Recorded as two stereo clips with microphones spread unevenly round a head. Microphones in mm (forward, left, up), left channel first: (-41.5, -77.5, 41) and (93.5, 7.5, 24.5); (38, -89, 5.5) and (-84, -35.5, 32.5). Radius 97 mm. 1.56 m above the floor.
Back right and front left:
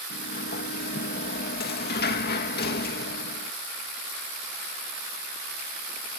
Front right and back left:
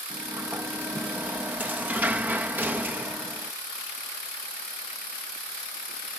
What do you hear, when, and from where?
0.1 s a sliding door: 130° right